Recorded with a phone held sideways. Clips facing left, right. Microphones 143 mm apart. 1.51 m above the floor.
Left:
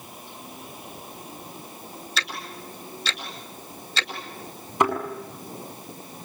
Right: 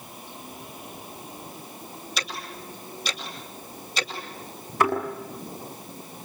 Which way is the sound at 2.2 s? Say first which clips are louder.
Left 1 dB; 15° right (ahead or behind).